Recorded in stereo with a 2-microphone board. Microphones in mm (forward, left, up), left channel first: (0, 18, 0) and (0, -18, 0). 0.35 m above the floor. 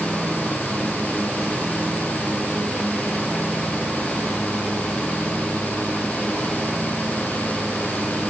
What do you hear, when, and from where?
Only background noise.